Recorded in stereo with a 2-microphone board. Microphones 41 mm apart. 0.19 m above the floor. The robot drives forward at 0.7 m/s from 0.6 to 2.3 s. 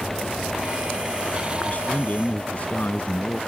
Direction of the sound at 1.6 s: 40° left (ahead or behind).